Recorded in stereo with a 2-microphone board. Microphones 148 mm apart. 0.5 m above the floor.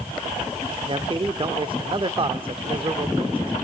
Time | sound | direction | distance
0.9 | a man speaking | 35° right (ahead or behind) | 1.1 m